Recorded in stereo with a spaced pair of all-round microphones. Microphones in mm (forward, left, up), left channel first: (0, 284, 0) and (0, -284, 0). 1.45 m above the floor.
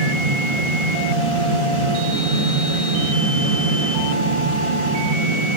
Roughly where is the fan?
Right.